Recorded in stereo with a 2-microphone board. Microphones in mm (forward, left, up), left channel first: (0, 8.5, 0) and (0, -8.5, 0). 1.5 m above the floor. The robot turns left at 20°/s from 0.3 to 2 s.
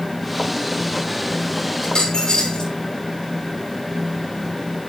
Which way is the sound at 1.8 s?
40° left (ahead or behind).